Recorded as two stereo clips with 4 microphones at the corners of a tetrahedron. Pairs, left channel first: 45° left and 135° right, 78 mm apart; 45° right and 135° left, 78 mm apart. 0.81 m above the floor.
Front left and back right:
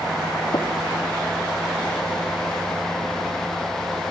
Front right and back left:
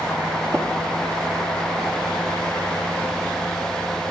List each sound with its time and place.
0.5 s tapping: 65° left, 1.0 m